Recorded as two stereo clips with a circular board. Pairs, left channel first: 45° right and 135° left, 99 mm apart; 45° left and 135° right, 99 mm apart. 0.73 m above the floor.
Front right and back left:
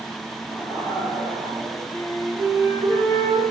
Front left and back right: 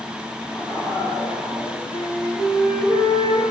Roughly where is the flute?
Ahead.